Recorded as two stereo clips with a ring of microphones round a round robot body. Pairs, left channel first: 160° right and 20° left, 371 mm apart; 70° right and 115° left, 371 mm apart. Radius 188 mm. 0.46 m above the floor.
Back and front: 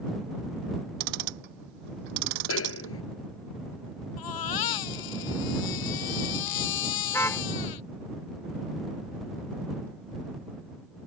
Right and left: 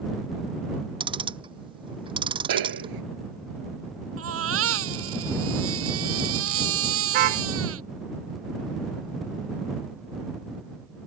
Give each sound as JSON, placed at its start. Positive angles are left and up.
{"t": 1.0, "sound": "ticking", "azimuth_deg": 35}
{"t": 2.5, "sound": "a snare drum", "azimuth_deg": 145}
{"t": 4.2, "sound": "a baby crying", "azimuth_deg": 170}
{"t": 7.1, "sound": "a car horn", "azimuth_deg": 120}